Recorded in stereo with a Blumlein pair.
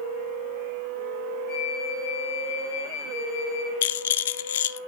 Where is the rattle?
60° left, 0.6 m.